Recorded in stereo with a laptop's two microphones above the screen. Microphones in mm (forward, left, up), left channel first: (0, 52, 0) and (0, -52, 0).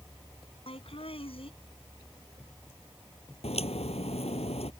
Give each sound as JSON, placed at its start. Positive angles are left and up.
{"t": 0.7, "sound": "laughter", "side_deg": 60}
{"t": 3.4, "sound": "a crack", "side_deg": 75}